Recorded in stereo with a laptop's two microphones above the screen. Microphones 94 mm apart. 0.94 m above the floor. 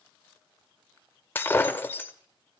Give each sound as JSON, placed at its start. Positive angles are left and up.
{"t": 1.4, "sound": "breaking glass", "side_deg": 20, "distance_m": 0.7}